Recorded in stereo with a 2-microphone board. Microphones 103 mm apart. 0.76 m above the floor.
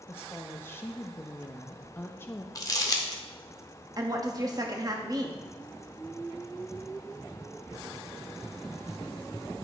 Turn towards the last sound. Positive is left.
turn(degrees=-35)  # may be behind; listen again after turning